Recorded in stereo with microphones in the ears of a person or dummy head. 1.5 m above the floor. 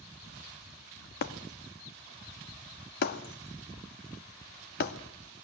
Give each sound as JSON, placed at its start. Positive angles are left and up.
{"t": 1.2, "sound": "breaking glass", "side_deg": 55, "distance_m": 1.7}